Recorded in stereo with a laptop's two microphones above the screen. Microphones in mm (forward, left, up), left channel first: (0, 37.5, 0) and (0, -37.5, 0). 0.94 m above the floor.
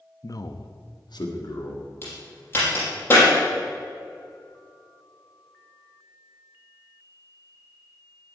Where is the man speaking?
45° left (ahead or behind), 1.0 m; by 1.9 s 55° left (ahead or behind), 2.5 m.